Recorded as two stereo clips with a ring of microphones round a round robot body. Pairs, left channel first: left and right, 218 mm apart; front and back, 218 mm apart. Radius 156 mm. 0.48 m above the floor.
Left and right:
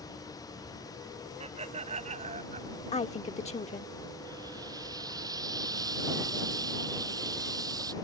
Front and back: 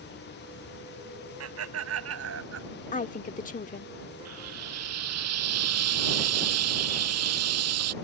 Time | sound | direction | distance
1.4 | laughter | 160° right | ?
2.9 | a woman speaking | 40° left | ?
4.2 | frying | 170° right | ?